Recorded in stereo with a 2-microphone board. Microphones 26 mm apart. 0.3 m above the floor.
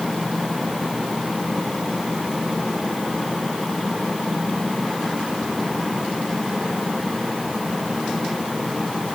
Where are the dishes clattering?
I don't hear dishes clattering.